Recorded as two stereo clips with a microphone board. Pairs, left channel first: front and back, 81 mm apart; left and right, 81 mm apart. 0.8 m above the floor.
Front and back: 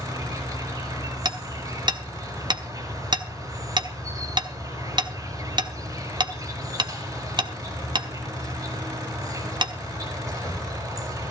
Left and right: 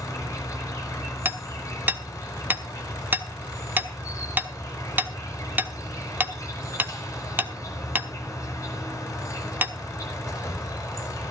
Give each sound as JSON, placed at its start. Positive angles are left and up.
{"t": 0.0, "sound": "an insect", "azimuth_deg": 140, "distance_m": 5.0}
{"t": 1.2, "sound": "hammering", "azimuth_deg": -155, "distance_m": 1.1}